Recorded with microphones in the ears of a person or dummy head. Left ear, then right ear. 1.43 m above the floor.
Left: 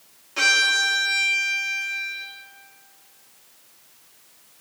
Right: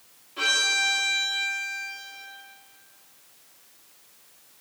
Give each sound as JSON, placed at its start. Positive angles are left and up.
{"t": 0.4, "sound": "a violin", "side_deg": 50, "distance_m": 1.5}